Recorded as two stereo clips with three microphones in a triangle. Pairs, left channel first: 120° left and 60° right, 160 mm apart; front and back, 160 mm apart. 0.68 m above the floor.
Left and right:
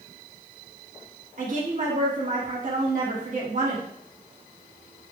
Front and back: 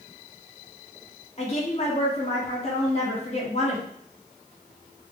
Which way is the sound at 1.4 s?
40° right.